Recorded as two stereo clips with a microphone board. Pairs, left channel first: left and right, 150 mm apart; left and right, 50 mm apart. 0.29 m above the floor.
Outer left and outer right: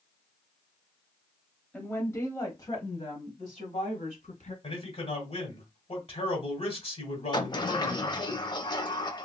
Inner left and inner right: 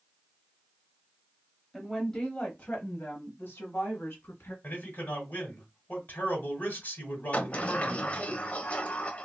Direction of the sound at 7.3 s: 30° left (ahead or behind).